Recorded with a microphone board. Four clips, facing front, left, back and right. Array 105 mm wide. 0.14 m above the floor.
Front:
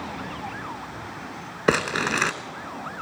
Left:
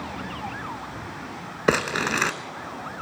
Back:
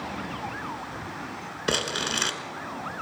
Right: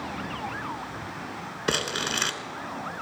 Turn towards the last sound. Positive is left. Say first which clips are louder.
# left 7 dB, front 7 dB
turn(degrees=40)